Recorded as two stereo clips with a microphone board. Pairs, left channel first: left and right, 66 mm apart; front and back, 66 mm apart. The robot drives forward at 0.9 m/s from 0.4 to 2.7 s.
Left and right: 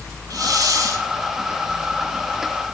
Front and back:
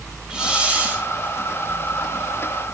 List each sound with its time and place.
0.3 s a hiss: 105° right, 3 m; by 1.1 s 115° right, 3 m